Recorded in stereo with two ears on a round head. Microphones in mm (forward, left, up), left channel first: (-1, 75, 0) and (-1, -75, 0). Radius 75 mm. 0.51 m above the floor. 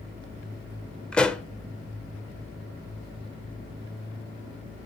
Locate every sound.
1.1 s a pop: 5° left (ahead or behind), 0.7 m